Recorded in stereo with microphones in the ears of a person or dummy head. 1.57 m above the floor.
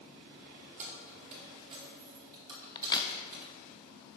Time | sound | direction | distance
0.8 | keys jangling | 45° right (ahead or behind) | 2.5 m
2.8 | a crack | 25° left (ahead or behind) | 0.8 m